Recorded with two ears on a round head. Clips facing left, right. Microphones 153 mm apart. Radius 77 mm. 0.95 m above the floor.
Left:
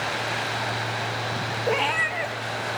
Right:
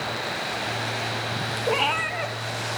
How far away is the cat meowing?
About 0.5 m.